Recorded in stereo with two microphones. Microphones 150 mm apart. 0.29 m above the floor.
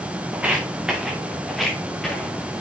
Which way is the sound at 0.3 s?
10° right (ahead or behind).